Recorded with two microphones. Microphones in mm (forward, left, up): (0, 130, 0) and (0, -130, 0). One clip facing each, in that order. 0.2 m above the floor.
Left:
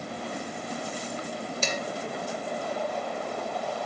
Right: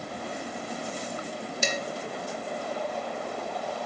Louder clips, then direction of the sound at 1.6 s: Right 2 dB; 15° right (ahead or behind).